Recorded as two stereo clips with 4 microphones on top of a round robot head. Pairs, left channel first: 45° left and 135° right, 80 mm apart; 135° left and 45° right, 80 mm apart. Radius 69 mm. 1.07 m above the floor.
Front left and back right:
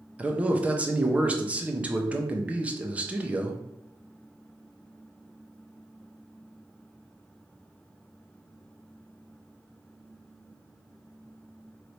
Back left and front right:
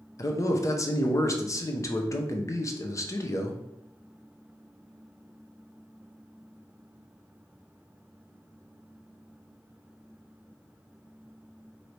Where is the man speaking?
160° left, 0.8 m.